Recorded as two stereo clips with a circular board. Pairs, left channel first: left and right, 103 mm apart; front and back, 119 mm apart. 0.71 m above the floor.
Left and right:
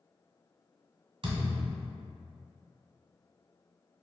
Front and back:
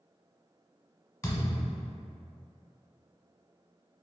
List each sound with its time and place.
1.2 s a thud: 60° right, 1.3 m